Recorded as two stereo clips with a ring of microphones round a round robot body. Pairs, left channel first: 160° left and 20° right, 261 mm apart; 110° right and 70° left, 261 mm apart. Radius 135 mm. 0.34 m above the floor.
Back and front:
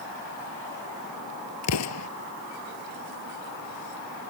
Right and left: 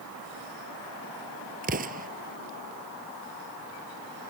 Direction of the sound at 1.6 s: 130° left.